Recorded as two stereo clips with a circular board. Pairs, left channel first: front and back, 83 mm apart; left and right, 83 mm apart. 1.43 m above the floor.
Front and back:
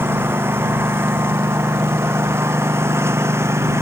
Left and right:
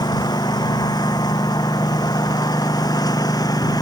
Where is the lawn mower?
120° left; by 3.8 s 125° left.